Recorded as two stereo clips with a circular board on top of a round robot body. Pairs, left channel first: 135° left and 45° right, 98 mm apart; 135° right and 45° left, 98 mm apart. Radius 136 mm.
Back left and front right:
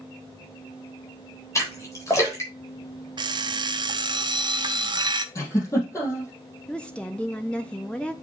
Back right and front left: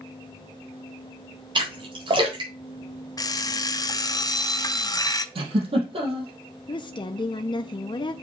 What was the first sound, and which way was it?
A splash, 80° left.